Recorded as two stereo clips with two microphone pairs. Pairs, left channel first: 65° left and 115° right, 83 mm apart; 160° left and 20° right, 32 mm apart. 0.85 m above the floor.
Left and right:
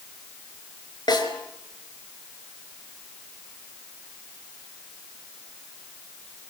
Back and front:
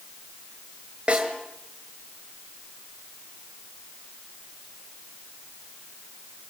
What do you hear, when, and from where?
1.1 s a snare drum: 35° left, 5 m